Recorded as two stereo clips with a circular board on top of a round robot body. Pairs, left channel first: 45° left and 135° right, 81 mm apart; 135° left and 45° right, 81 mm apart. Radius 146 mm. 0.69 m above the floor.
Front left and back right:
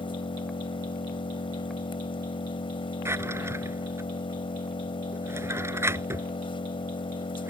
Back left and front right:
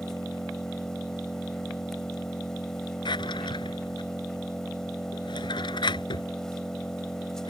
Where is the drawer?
165° left.